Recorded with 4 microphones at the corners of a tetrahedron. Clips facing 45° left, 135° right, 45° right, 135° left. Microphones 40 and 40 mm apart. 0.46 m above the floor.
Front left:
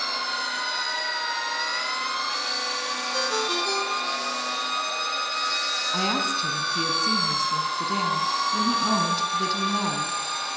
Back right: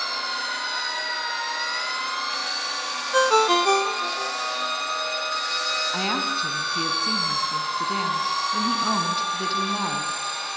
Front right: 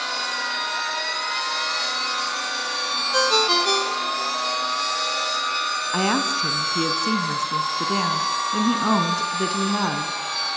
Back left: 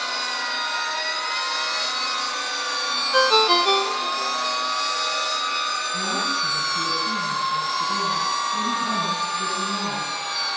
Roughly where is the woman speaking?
Ahead right.